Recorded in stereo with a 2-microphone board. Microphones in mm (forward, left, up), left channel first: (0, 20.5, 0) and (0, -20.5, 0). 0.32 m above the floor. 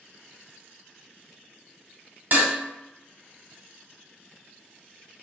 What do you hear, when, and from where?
2.3 s dishes clattering: 50° right (ahead or behind), 1.0 m